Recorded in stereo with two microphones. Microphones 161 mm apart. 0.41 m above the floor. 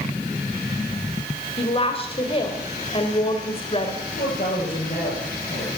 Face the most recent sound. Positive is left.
turn(degrees=55)  # may be behind; listen again after turning